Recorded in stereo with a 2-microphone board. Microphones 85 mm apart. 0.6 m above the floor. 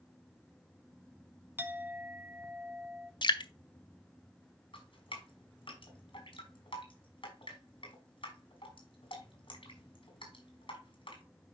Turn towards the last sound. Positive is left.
turn(degrees=70)  # may be behind; listen again after turning